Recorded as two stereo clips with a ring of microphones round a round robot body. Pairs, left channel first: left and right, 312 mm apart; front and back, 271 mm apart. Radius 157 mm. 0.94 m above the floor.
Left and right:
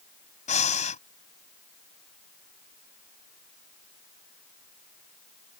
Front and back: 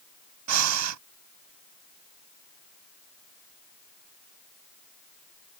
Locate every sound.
0.5 s breathing: 160° left